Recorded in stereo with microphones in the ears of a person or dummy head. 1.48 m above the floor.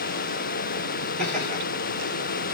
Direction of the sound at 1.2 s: 10° left (ahead or behind).